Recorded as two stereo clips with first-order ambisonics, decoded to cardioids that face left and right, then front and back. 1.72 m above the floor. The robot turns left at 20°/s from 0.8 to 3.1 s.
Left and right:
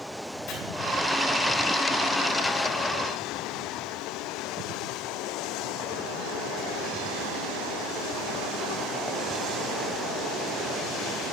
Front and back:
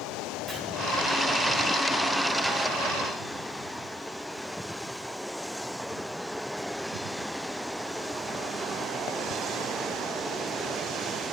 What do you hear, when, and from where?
0.5 s chopping: 105° left, 2.5 m